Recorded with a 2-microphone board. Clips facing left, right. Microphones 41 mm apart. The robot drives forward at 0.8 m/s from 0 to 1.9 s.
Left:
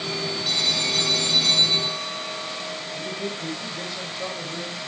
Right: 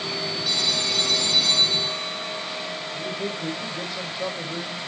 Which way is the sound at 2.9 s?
5° right (ahead or behind).